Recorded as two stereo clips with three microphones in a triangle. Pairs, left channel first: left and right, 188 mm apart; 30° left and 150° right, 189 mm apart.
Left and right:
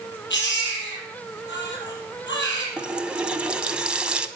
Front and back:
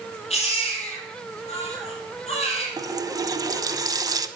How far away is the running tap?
About 0.8 m.